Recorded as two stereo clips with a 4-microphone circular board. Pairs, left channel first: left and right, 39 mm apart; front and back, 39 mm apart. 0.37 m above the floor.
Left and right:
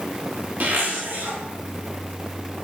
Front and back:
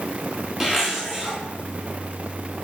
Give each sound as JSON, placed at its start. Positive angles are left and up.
{"t": 0.6, "sound": "a zipper", "azimuth_deg": -100, "distance_m": 3.5}